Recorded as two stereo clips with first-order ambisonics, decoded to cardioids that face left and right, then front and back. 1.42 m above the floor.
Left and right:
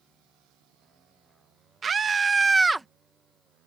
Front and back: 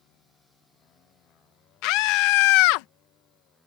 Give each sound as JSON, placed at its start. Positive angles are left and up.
{"t": 1.8, "sound": "a scream", "azimuth_deg": -20}